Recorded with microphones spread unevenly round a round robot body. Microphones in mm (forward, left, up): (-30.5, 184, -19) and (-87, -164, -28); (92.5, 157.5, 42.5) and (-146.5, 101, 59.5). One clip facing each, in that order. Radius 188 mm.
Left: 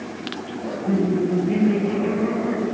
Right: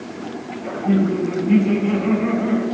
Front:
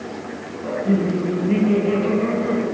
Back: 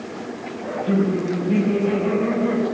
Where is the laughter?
50° right, 3 m.